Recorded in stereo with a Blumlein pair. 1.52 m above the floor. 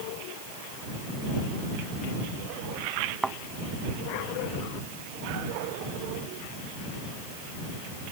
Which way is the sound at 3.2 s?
10° right.